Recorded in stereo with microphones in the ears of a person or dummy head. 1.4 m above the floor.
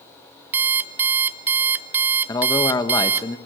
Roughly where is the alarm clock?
Centre.